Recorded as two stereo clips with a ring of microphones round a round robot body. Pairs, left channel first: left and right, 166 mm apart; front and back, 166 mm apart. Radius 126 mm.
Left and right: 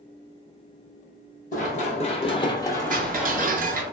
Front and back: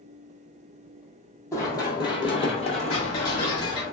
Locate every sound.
1.5 s running footsteps: 70° left, 1.2 m; by 3.9 s 30° right, 1.1 m
2.9 s ticking: 65° right, 0.6 m